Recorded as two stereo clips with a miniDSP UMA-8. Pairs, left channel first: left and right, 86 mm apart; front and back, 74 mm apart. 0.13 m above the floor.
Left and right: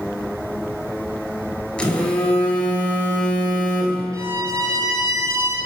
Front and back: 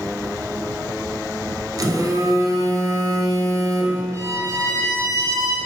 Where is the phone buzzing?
165° left, 1.1 m.